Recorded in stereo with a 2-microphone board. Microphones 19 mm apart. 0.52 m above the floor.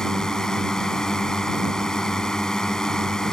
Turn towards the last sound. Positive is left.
turn(degrees=35)  # may be behind; listen again after turning